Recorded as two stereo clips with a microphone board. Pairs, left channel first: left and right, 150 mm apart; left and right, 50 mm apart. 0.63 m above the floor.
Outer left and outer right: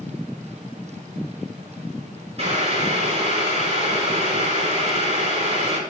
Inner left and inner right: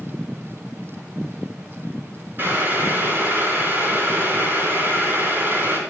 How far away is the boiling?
About 5.5 m.